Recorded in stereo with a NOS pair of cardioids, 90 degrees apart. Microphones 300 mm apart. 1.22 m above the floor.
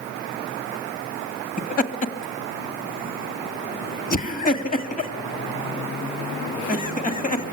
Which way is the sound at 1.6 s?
25° left.